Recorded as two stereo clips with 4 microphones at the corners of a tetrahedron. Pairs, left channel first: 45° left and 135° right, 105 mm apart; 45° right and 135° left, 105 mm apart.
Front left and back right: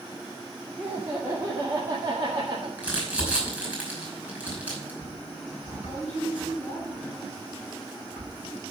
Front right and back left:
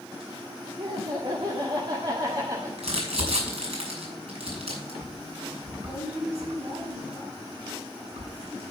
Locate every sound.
0.8 s laughter: 155° left, 2 m; by 2.7 s 175° right, 1.6 m
2.8 s crumpling: 145° left, 5.5 m